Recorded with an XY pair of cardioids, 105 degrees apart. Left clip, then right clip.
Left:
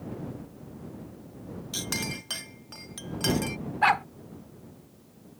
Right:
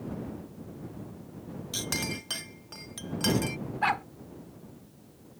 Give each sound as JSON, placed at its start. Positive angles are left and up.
{"t": 1.7, "sound": "a clink", "azimuth_deg": 0}
{"t": 3.8, "sound": "a dog barking", "azimuth_deg": 35}